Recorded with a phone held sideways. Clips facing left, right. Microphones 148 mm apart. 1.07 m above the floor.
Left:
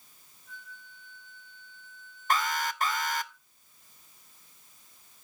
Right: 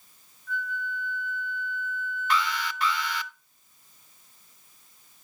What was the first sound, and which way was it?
A flute, 75° right (ahead or behind).